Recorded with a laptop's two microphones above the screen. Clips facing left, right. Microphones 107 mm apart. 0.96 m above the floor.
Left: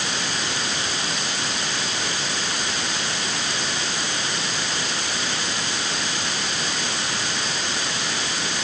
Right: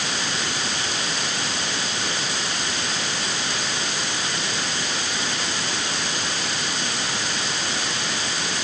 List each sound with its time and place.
Only background noise.